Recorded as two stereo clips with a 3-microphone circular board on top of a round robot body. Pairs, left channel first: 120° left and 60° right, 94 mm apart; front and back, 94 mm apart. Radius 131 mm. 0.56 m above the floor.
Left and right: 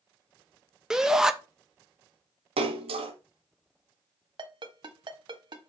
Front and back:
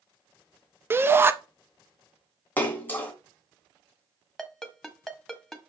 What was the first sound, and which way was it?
A shout, 140° right.